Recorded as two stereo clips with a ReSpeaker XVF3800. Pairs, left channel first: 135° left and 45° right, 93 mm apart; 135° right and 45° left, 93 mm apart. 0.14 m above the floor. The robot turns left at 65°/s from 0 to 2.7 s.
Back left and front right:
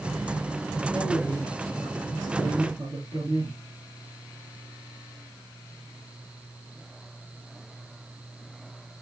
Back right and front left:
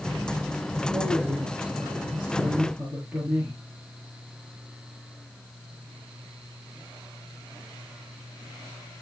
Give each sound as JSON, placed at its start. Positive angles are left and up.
{"t": 0.9, "sound": "a man speaking", "azimuth_deg": 90, "distance_m": 3.5}